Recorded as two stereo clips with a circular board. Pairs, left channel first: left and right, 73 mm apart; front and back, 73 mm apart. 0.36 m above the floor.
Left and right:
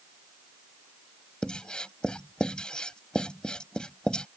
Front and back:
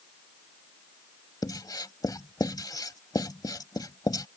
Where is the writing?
15° left.